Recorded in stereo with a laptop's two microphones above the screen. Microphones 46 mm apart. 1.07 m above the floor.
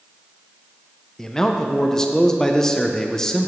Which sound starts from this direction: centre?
A man speaking, at 1.2 s.